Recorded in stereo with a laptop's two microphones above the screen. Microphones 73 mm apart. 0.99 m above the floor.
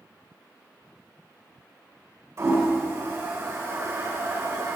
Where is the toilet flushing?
45° right (ahead or behind), 2.5 m.